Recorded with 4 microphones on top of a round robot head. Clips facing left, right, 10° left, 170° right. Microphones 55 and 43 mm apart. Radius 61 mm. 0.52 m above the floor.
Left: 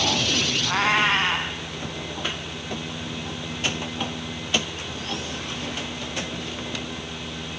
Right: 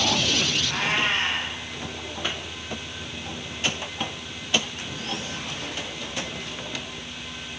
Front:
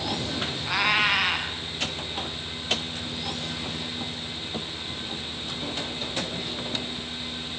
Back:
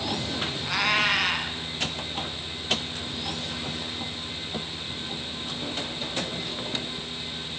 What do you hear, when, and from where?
0.6 s a cat meowing: 95° left, 2 m